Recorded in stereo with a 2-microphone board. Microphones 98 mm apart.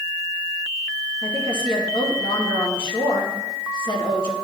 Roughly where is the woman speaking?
Left.